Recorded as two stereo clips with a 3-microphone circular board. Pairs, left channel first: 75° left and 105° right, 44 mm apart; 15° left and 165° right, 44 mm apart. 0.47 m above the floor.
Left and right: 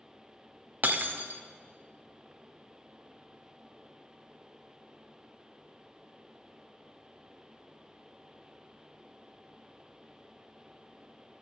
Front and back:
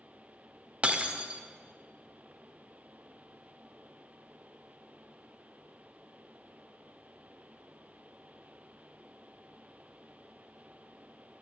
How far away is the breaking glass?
About 0.6 m.